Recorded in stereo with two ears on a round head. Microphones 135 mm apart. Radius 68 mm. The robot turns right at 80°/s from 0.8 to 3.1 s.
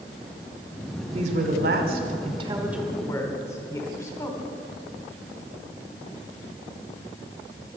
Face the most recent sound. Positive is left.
turn(degrees=20)  # may be behind; listen again after turning